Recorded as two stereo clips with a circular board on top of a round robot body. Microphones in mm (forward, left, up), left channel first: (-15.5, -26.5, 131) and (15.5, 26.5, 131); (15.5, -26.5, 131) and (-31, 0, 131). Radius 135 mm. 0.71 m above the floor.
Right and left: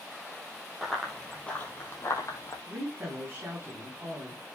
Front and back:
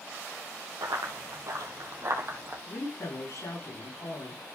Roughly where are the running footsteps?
Behind left.